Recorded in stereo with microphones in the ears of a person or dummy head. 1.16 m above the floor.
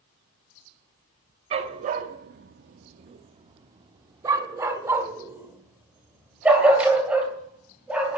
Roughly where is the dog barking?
Right.